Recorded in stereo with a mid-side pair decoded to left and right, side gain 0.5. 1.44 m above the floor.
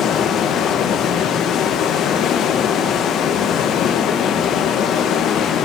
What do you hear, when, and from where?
0.0 s running water: 65° left, 1.3 m